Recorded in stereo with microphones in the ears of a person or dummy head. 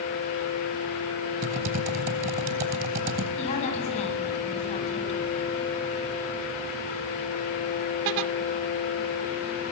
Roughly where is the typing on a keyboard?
Right.